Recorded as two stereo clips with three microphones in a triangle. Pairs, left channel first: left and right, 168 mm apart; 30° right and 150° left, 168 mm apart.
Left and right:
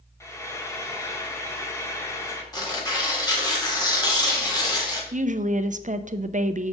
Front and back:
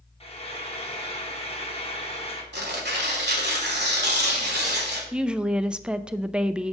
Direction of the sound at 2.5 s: 160° left.